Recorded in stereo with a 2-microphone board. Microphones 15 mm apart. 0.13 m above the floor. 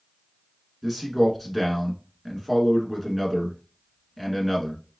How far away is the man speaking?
About 1.2 m.